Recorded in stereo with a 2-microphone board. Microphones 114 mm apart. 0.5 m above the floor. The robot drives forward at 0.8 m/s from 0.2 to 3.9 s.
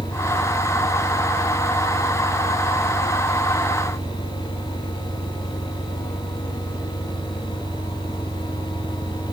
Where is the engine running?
90° right; by 9.3 s 85° right.